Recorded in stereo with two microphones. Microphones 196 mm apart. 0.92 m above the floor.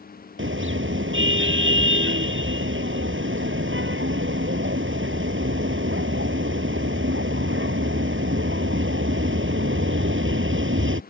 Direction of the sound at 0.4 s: 90° right.